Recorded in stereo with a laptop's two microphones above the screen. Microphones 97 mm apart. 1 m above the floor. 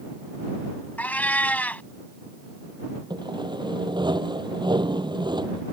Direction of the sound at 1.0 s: 15° left (ahead or behind).